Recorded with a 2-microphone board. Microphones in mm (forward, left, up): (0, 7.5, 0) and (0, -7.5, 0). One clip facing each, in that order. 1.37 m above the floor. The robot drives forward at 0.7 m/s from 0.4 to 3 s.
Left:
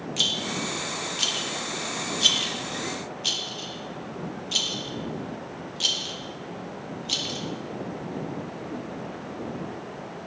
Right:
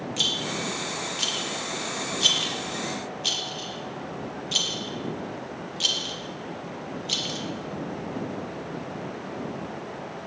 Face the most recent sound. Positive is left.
turn(degrees=5)  # may be behind; listen again after turning